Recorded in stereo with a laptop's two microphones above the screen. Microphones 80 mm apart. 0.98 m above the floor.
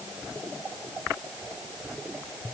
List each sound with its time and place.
Only background noise.